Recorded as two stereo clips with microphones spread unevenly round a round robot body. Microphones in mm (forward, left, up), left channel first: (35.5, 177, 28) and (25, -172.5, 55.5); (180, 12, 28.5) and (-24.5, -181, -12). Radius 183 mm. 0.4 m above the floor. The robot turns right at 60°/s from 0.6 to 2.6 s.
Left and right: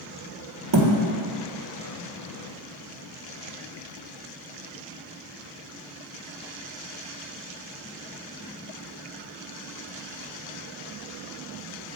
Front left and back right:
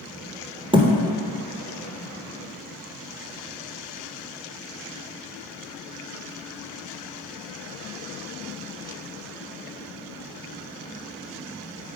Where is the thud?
60° right, 1.3 m; by 0.9 s 50° right, 1.3 m.